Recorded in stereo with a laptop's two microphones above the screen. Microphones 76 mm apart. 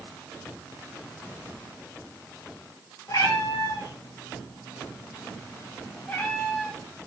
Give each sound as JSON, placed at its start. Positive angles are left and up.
{"t": 3.1, "sound": "a cat meowing", "side_deg": 55, "distance_m": 2.5}